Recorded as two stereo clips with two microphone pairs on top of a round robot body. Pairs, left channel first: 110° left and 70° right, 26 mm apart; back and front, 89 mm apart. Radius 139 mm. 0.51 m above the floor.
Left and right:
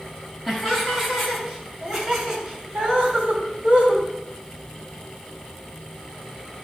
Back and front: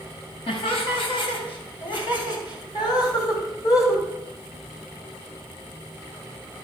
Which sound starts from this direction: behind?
Laughter, at 0.5 s.